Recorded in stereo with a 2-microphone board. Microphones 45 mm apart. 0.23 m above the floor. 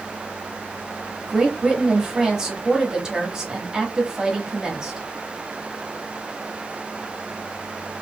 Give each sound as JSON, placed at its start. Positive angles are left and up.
{"t": 1.3, "sound": "a woman speaking", "side_deg": -15, "distance_m": 1.3}